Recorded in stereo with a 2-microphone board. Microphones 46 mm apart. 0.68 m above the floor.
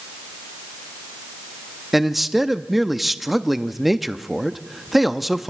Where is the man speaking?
5° right (ahead or behind), 0.7 m.